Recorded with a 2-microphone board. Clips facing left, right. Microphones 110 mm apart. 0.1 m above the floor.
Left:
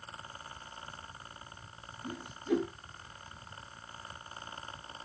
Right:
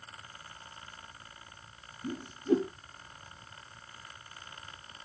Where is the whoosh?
35° right (ahead or behind), 1.4 m.